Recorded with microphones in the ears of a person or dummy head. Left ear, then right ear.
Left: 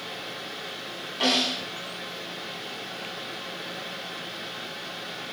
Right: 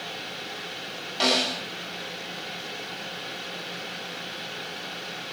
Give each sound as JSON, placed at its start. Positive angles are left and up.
{"t": 0.0, "sound": "a fan", "side_deg": -40, "distance_m": 6.5}
{"t": 1.2, "sound": "a snare drum", "side_deg": -65, "distance_m": 8.5}